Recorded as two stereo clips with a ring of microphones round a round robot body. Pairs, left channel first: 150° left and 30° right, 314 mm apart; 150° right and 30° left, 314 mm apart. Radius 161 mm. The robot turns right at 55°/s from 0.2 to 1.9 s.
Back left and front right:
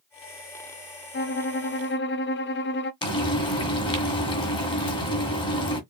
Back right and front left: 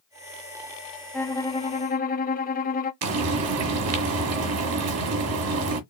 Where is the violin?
125° left, 0.8 m; by 2.9 s 170° left, 0.8 m.